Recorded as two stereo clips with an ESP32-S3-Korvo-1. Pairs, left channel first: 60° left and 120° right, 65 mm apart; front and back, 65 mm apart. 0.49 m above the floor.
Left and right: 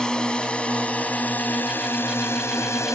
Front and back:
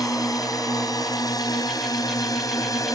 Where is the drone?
15° right; by 3.0 s 20° left.